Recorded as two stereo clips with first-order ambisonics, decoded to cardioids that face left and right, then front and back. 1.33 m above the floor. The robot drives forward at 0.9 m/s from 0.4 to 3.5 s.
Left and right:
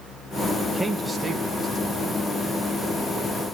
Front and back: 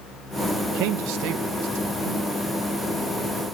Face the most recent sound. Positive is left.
turn(degrees=180)